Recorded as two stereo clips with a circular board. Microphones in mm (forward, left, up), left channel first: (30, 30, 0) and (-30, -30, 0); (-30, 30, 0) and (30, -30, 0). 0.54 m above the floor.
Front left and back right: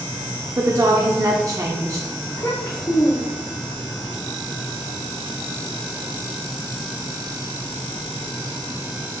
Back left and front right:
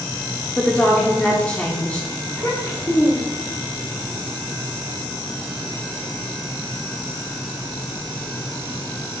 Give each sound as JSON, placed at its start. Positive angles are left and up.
{"t": 0.6, "sound": "a woman speaking", "azimuth_deg": -155, "distance_m": 0.9}
{"t": 2.3, "sound": "a child speaking", "azimuth_deg": 90, "distance_m": 1.2}